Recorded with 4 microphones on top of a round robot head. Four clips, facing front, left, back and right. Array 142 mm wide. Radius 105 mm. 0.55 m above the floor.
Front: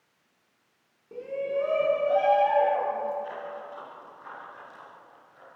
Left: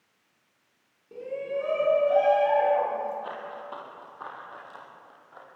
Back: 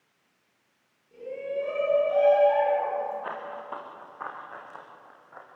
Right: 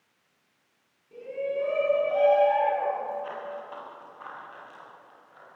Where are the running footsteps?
160° left, 7.5 m; by 5.5 s 150° left, 8 m.